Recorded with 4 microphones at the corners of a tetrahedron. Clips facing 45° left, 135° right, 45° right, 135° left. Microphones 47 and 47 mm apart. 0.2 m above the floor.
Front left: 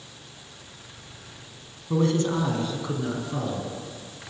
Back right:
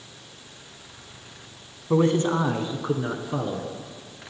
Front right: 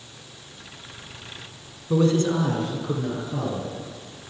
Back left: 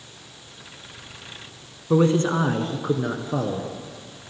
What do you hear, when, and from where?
1.9 s a man speaking: straight behind, 1.5 m; by 3.7 s 165° left, 2.5 m